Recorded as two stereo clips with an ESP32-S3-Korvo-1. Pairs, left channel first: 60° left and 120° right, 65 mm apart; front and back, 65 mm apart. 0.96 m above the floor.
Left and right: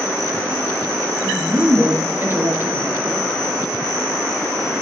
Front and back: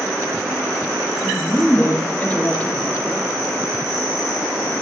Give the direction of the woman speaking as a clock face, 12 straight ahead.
2 o'clock.